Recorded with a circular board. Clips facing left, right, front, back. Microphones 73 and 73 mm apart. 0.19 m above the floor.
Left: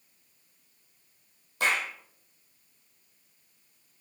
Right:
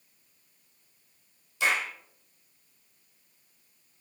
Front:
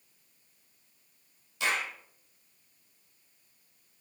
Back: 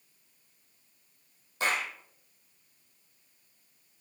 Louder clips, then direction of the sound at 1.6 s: Even, back 1 dB; 130° left.